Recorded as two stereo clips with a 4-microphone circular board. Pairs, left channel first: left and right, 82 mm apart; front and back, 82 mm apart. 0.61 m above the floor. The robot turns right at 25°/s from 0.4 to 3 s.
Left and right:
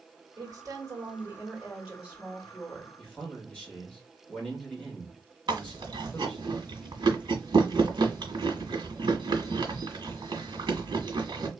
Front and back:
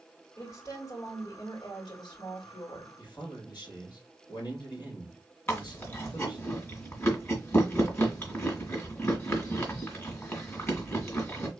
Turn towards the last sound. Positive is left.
turn(degrees=-60)